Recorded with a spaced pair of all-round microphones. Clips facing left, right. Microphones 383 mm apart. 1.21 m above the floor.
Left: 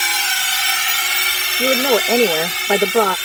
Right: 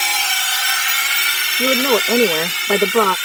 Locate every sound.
0.0 s a drone: 25° left (ahead or behind); by 3.3 s 65° left (ahead or behind)
1.6 s a woman speaking: 10° right (ahead or behind)